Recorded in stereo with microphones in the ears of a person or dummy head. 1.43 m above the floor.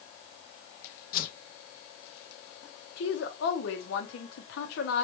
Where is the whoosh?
60° left (ahead or behind), 0.7 m.